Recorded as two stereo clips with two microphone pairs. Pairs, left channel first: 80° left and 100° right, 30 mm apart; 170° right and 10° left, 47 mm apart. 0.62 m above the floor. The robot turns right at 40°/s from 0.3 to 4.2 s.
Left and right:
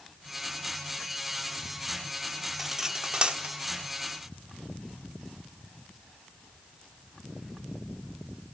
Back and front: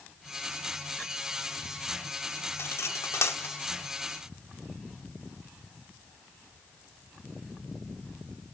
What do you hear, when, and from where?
2.6 s cutlery clinking: straight behind, 0.8 m; by 3.5 s 145° right, 0.8 m